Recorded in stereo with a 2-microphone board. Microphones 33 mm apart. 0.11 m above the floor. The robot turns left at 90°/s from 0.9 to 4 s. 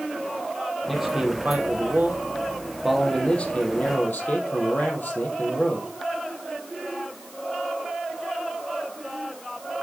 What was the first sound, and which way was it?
A man speaking, straight ahead.